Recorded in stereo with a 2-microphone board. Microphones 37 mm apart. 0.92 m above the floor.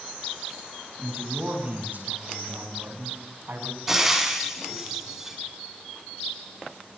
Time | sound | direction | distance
1.0 | a man speaking | 45° right (ahead or behind) | 6.5 m
3.9 | frying | 10° right (ahead or behind) | 6 m